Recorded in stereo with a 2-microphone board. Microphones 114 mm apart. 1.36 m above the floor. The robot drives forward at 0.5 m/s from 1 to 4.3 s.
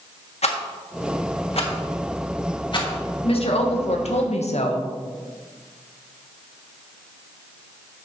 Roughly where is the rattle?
Left.